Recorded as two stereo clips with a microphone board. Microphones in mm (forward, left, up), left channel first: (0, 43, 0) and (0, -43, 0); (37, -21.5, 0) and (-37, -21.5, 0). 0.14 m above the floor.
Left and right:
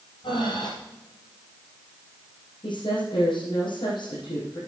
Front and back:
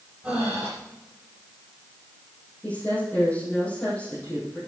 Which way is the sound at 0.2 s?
105° left.